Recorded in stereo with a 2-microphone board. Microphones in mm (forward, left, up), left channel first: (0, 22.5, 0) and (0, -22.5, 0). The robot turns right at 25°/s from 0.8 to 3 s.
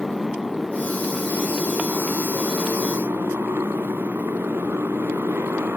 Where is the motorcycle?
175° right; by 5.8 s 120° right.